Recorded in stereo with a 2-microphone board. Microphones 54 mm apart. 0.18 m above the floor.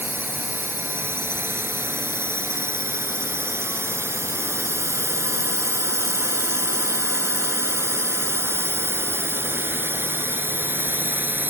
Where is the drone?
45° right (ahead or behind); by 11.5 s 40° right (ahead or behind).